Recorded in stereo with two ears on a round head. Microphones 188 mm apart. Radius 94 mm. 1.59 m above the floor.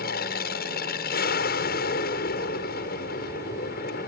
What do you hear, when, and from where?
0.0 s an aircraft: 45° left (ahead or behind)